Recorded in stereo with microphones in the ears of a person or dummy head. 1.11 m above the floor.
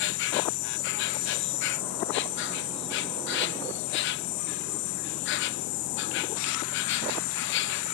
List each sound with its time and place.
0.0 s an insect: 60° left (ahead or behind)